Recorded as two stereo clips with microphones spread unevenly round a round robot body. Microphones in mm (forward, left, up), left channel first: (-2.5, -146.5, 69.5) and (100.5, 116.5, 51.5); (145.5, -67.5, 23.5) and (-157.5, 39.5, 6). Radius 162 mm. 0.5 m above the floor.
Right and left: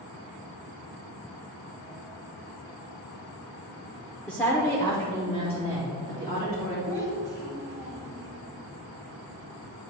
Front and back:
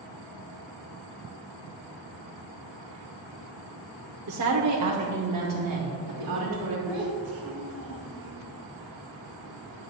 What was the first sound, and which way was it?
A woman speaking, 160° left.